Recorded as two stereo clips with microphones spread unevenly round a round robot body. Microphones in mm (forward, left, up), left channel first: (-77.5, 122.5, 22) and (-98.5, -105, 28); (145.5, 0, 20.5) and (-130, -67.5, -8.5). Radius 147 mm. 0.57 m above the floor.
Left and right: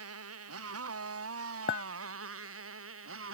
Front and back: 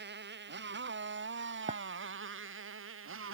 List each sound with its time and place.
0.0 s a motorcycle: 110° right; by 3.4 s 120° right
1.7 s a clink: 125° left